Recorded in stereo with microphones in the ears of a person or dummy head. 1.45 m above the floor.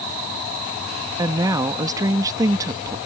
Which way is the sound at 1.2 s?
20° right (ahead or behind).